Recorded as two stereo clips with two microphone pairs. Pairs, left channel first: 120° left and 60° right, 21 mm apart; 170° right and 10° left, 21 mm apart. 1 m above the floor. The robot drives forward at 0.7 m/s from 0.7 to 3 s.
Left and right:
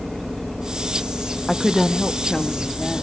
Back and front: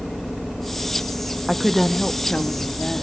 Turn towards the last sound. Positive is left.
turn(degrees=175)